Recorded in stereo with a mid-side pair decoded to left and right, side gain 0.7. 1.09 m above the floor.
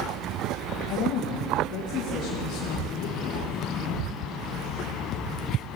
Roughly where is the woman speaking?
Left.